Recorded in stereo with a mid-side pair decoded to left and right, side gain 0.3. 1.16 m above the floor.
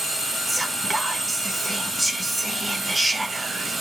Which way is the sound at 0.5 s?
20° right.